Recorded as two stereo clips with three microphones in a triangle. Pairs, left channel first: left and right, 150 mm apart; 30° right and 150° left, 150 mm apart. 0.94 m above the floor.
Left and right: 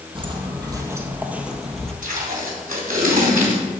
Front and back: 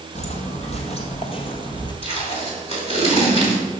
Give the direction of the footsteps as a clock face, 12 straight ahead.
2 o'clock.